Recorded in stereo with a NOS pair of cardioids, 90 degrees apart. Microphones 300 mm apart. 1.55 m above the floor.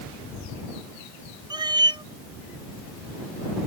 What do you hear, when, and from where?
1.5 s a cat meowing: 15° right